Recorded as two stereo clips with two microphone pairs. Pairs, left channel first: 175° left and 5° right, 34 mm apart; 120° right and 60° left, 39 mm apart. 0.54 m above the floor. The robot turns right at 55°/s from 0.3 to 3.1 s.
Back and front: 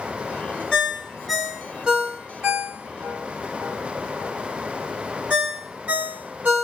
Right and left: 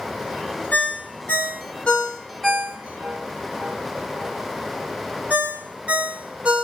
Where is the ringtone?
125° right, 1.4 m; by 6.6 s 5° left, 1.4 m.